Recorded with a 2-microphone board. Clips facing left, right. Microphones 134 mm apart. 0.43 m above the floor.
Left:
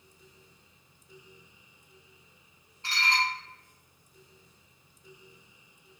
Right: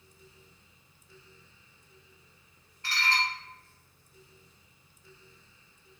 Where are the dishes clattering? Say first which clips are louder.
Left 1 dB; 25° left (ahead or behind), 0.8 m.